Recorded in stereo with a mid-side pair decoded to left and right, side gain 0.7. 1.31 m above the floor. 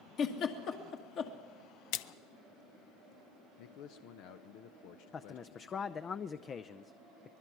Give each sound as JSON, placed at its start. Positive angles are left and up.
{"t": 0.2, "sound": "a giggle", "azimuth_deg": 50, "distance_m": 2.0}
{"t": 1.9, "sound": "a splash", "azimuth_deg": 70, "distance_m": 0.6}
{"t": 3.6, "sound": "a man speaking", "azimuth_deg": 70, "distance_m": 0.9}
{"t": 5.1, "sound": "a man speaking", "azimuth_deg": 35, "distance_m": 0.6}